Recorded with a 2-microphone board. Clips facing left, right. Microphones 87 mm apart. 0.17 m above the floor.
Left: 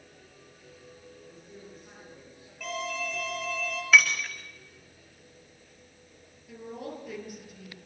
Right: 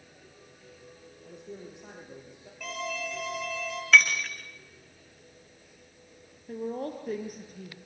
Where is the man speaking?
75° right (ahead or behind), 6.5 m.